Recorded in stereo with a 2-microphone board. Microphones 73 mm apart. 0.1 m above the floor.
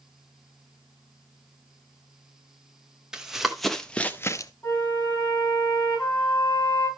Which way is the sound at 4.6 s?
25° left (ahead or behind).